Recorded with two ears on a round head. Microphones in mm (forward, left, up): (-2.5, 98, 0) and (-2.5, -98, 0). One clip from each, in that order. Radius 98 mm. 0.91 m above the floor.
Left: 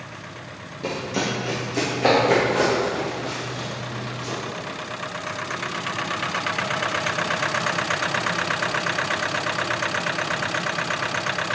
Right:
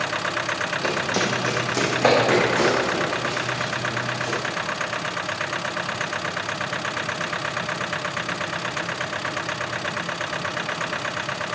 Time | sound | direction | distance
0.8 | running footsteps | 45° right (ahead or behind) | 2 m